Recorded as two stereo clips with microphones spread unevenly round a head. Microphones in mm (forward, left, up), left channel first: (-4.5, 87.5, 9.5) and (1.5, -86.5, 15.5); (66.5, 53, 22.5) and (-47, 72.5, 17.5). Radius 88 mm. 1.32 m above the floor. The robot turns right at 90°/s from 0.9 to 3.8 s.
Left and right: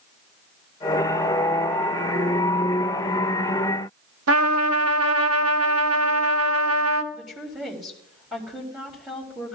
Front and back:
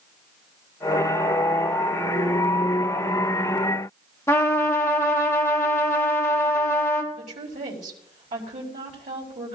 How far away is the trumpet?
About 1.1 m.